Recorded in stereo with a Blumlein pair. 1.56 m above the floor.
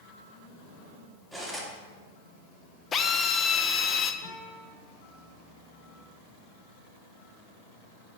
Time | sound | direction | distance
1.3 | cutlery clinking | 10° right | 2.5 m
2.9 | a drill | 20° left | 0.8 m
4.2 | a guitar | 35° right | 4 m